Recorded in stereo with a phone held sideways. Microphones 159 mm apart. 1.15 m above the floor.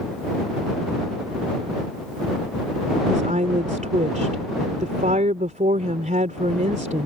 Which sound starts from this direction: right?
A woman speaking, at 3.1 s.